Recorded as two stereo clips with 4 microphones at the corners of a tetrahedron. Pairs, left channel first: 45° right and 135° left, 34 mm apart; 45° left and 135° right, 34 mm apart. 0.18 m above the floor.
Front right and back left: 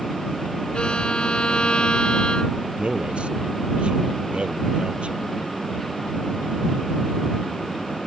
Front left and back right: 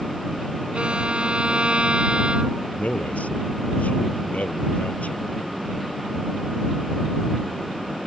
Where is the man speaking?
80° left.